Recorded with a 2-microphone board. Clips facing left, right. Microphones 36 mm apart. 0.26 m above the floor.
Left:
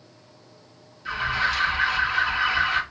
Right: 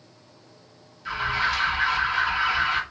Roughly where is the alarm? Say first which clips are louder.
Even; centre.